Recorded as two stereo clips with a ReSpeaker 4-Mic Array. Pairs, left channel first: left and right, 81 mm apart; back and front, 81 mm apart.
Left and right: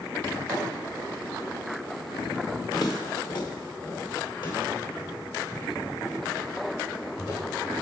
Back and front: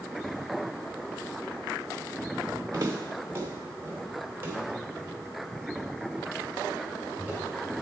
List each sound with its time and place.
2.7 s footsteps: 50° left, 1.1 m; by 7.7 s 70° left, 5.5 m